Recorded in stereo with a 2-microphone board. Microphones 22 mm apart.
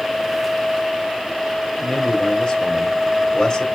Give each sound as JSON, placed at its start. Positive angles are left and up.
{"t": 1.8, "sound": "a man speaking", "side_deg": 40, "distance_m": 4.0}